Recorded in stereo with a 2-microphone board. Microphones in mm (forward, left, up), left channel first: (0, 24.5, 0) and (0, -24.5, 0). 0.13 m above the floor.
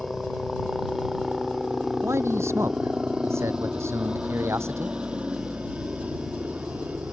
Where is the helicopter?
Centre (ahead or behind); by 7.1 s 30° right (ahead or behind).